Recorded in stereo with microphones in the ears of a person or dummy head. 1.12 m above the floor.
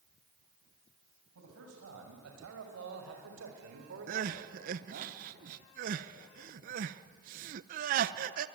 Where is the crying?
45° right (ahead or behind), 0.7 m.